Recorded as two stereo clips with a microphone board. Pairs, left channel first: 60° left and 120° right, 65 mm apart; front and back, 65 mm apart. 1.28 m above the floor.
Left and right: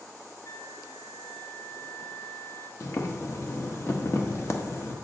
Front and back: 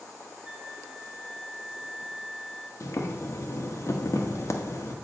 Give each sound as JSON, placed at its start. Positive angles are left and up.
{"t": 0.5, "sound": "a flute", "azimuth_deg": 100, "distance_m": 1.0}
{"t": 2.8, "sound": "boiling", "azimuth_deg": 25, "distance_m": 1.1}